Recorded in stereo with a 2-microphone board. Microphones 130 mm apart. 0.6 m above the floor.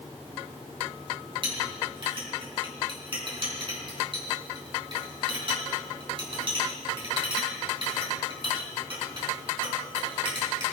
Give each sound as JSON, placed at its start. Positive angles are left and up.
{"t": 1.4, "sound": "a clink", "side_deg": -45, "distance_m": 3.5}